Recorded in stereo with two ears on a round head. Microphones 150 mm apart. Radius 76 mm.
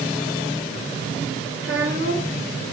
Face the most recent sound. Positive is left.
turn(degrees=-75)  # may be behind; listen again after turning